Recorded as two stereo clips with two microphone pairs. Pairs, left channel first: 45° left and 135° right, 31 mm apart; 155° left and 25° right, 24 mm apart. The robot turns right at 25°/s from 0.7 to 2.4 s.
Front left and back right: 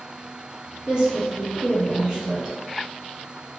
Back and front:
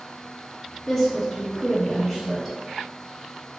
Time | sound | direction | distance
0.9 | a woman speaking | 120° right | 1.1 m